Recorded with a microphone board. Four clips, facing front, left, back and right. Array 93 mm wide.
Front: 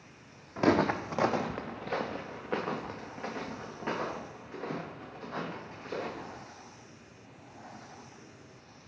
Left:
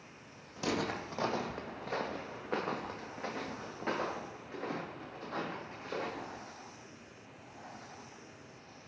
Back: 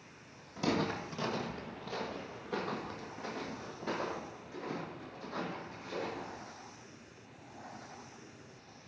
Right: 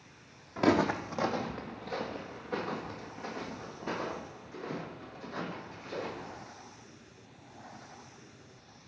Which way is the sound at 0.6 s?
45° right.